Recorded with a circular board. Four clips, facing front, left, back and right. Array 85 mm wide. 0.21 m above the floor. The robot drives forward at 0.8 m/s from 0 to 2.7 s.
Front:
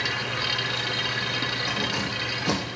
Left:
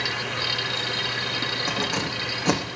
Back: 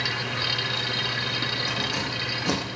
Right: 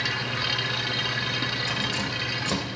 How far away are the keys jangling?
About 7 m.